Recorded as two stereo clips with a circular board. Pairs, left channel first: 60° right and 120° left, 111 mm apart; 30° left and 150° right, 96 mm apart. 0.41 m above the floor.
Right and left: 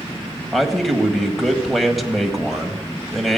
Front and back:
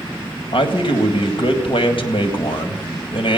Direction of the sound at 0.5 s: 30° left.